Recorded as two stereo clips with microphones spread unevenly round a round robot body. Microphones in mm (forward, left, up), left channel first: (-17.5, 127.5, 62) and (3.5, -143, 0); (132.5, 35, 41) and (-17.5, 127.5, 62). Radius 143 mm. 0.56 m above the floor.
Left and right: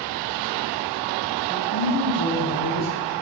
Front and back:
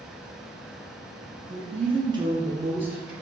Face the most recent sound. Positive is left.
turn(degrees=60)